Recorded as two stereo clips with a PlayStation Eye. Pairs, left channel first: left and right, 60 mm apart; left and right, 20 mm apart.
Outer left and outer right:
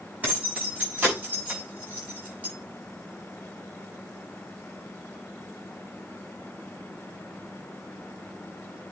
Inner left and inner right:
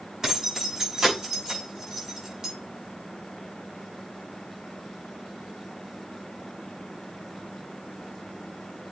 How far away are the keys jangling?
About 6.5 m.